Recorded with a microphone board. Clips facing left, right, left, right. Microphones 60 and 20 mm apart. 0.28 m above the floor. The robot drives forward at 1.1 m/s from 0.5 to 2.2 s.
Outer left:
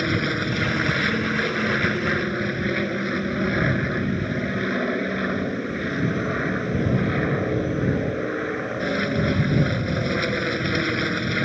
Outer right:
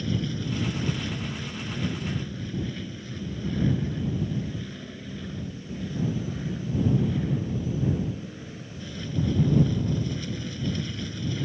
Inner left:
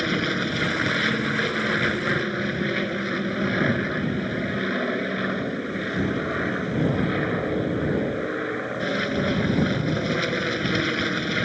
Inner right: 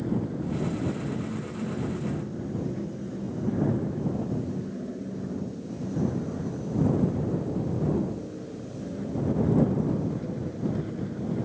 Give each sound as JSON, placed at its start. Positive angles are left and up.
{"t": 0.0, "sound": "an aircraft", "side_deg": 65}